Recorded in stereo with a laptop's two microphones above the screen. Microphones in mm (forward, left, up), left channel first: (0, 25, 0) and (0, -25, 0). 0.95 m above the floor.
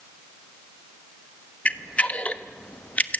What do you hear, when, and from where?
1.6 s a camera shutter: 25° left (ahead or behind), 1.1 m